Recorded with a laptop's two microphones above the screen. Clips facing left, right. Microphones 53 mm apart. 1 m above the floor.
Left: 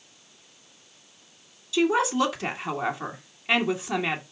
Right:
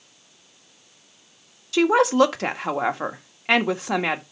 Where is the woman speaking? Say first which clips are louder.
Right 5 dB; 60° right (ahead or behind), 1.4 m.